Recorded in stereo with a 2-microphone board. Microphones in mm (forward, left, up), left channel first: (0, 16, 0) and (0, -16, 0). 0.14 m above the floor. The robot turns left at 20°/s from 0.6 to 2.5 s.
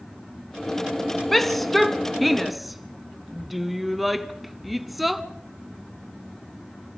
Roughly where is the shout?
Centre.